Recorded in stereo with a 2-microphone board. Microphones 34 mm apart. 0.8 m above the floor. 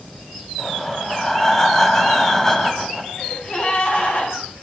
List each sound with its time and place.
0.6 s breathing: 15° left (ahead or behind), 3 m
3.2 s a gasp: 45° left (ahead or behind), 8 m